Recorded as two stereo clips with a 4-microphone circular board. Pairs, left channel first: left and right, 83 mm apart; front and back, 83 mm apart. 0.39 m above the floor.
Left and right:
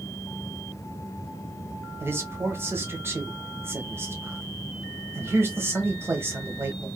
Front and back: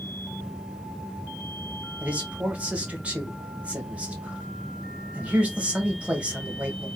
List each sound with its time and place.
2.0 s a man speaking: 120° right, 0.9 m